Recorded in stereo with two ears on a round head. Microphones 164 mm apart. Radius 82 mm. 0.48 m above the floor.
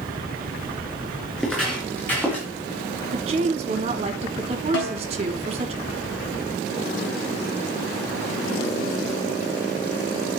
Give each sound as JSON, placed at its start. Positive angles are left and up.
{"t": 1.4, "sound": "footsteps", "side_deg": 5, "distance_m": 5.0}
{"t": 3.1, "sound": "a woman speaking", "side_deg": -35, "distance_m": 1.3}
{"t": 4.7, "sound": "a snare drum", "side_deg": 65, "distance_m": 2.5}